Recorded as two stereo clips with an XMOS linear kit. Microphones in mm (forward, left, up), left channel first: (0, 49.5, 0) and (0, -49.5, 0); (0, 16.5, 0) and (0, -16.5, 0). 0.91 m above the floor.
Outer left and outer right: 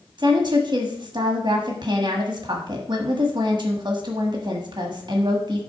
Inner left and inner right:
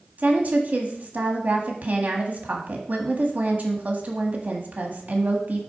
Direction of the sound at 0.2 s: 50° right (ahead or behind).